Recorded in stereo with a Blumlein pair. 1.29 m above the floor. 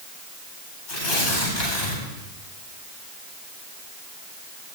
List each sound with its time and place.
0.9 s tearing paper: 45° left, 9.5 m